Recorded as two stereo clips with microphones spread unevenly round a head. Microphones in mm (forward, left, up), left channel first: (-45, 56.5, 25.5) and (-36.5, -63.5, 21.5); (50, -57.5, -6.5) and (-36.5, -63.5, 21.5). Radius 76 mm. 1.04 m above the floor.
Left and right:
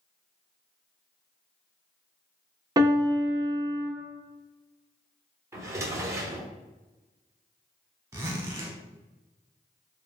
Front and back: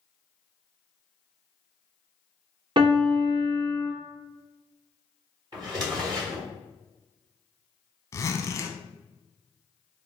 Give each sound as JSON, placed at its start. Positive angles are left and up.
{"t": 2.8, "sound": "a piano", "azimuth_deg": -145, "distance_m": 0.9}
{"t": 5.5, "sound": "a drawer", "azimuth_deg": -150, "distance_m": 1.2}
{"t": 8.1, "sound": "a zipper", "azimuth_deg": -20, "distance_m": 0.7}